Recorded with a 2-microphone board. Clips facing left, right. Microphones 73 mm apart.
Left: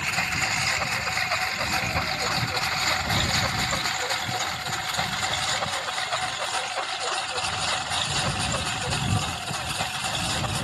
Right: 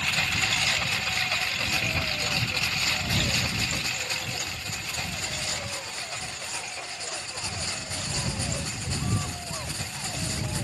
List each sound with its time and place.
0.0 s a lawn mower: 15° left (ahead or behind); by 10.6 s 80° left